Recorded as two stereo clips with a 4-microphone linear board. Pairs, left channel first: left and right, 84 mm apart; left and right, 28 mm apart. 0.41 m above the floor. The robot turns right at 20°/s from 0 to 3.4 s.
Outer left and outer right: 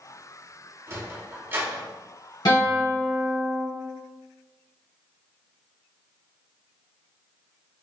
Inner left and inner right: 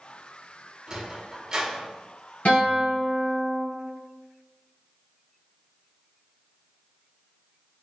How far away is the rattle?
I don't hear a rattle.